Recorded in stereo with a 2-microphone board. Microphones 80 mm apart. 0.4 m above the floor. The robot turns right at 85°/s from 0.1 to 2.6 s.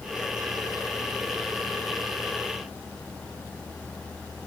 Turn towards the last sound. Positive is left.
No sound to turn to.